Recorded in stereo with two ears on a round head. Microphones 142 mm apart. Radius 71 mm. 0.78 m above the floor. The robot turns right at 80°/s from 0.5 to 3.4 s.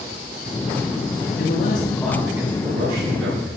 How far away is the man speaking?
About 8.5 m.